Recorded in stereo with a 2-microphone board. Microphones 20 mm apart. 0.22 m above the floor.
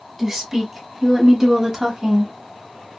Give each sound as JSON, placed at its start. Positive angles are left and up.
{"t": 0.2, "sound": "a woman speaking", "side_deg": -10, "distance_m": 1.5}